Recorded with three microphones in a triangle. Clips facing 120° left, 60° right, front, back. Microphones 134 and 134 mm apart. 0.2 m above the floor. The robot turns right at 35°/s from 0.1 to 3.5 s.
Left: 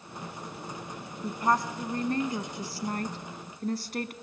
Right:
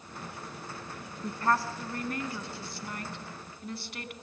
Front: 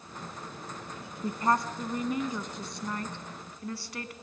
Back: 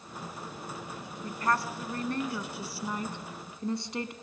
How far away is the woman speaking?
About 1.4 m.